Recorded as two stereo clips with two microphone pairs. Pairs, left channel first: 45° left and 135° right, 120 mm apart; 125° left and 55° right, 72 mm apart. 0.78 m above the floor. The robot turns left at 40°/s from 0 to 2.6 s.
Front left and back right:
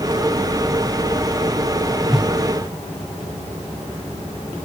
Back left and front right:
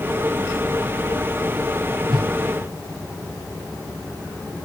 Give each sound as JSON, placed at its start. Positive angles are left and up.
{"t": 2.1, "sound": "a whoosh", "azimuth_deg": -45, "distance_m": 0.7}